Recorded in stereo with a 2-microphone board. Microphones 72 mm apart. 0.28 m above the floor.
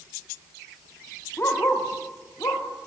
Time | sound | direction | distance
1.4 | a dog barking | 35° left (ahead or behind) | 4.5 m